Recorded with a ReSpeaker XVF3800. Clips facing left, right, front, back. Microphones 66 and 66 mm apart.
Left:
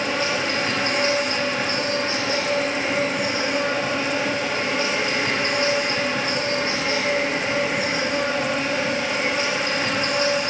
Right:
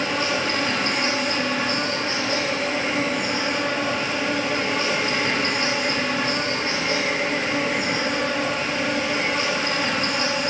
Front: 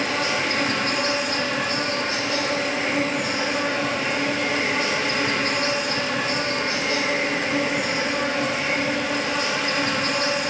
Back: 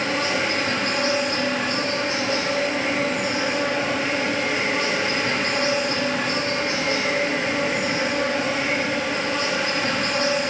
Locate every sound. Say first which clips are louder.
0.0 s an insect: even, back 1 dB; 160° left, 4 m